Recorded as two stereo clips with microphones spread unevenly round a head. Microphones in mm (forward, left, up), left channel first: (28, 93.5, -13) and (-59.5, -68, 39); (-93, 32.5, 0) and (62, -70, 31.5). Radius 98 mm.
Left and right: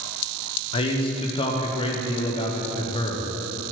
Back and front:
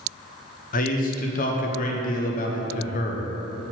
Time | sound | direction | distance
0.7 | a man speaking | 130° left | 0.6 m